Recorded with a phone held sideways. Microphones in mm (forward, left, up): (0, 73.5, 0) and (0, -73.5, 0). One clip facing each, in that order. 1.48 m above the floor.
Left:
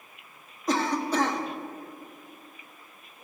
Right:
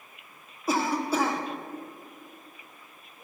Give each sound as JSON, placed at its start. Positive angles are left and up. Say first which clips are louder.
{"t": 0.7, "sound": "a cough", "louder": "even", "side_deg": -10, "distance_m": 1.2}